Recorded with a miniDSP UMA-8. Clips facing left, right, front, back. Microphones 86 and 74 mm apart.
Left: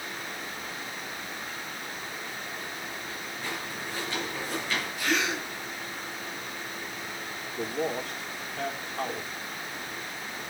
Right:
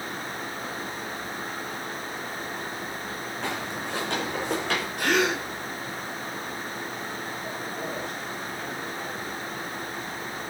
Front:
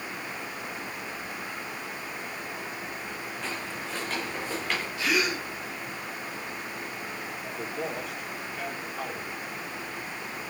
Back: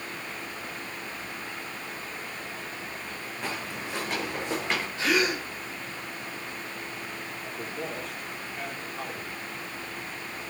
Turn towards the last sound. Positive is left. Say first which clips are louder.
# left 7 dB, front 2 dB
turn(degrees=85)